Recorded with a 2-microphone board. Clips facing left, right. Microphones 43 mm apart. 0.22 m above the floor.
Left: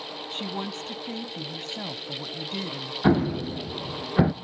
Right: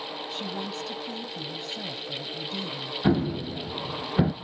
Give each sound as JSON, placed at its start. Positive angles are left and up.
{"t": 0.3, "sound": "a woman speaking", "side_deg": 35, "distance_m": 1.2}
{"t": 3.0, "sound": "an explosion", "side_deg": 20, "distance_m": 0.6}